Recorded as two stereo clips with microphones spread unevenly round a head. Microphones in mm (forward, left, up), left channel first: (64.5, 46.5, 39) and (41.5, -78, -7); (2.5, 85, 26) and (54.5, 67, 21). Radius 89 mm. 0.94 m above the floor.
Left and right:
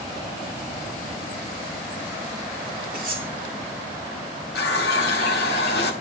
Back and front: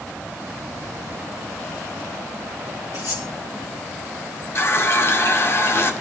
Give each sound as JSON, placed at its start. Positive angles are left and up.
{"t": 2.9, "sound": "cutlery clinking", "azimuth_deg": -160, "distance_m": 7.0}
{"t": 4.5, "sound": "a running tap", "azimuth_deg": 120, "distance_m": 2.0}